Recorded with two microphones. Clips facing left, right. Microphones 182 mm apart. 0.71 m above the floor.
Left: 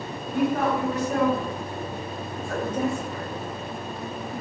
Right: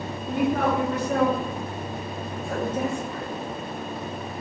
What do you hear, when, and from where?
0.3 s a woman speaking: 65° right (ahead or behind), 1.6 m; by 4.4 s 40° left (ahead or behind), 1.3 m